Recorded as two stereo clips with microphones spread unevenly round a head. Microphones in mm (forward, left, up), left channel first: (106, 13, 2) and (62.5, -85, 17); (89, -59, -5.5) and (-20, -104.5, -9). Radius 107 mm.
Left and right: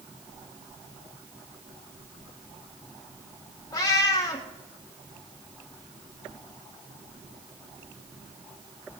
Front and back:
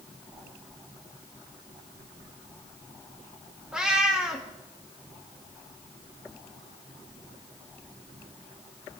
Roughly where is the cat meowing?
Behind left.